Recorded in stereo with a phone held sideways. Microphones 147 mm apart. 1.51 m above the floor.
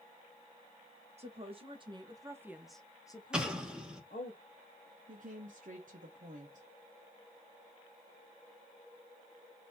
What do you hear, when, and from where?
1.2 s a woman speaking: 45° right (ahead or behind), 1.4 m; by 4.3 s 75° left (ahead or behind), 1.1 m
3.3 s an explosion: 5° right (ahead or behind), 1.0 m
5.1 s a woman speaking: 65° right (ahead or behind), 0.9 m